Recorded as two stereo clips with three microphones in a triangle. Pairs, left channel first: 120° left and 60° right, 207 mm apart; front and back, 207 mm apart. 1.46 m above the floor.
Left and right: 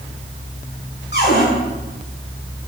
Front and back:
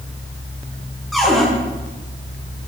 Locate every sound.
1.1 s a cupboard door: 90° left, 7.5 m